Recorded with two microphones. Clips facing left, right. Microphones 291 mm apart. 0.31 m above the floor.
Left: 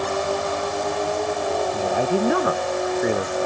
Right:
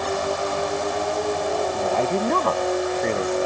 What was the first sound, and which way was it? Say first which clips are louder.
A woman speaking: left 1 dB; 10° left (ahead or behind).